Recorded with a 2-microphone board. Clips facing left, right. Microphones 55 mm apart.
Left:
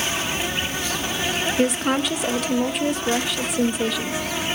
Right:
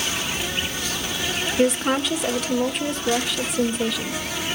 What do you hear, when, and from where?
0.0 s an insect: 30° left (ahead or behind), 1.3 m
1.6 s a woman speaking: centre (ahead or behind), 0.8 m